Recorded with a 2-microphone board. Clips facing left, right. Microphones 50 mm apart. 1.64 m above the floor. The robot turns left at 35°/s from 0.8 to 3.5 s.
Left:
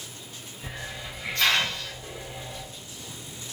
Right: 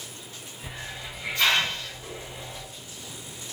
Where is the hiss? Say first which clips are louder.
Left 1 dB; 5° left, 1.1 m; by 2.7 s 60° right, 1.1 m.